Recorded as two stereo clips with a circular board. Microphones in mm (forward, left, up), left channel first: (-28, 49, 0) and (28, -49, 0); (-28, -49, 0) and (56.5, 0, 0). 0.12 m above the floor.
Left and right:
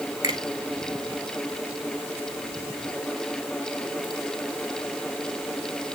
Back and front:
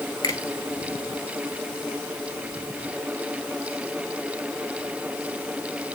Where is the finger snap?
110° right, 1.7 m.